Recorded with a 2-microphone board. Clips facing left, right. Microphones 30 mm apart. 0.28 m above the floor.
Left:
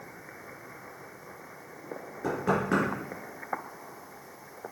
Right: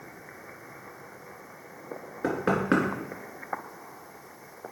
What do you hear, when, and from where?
2.2 s knocking: 35° right (ahead or behind), 3 m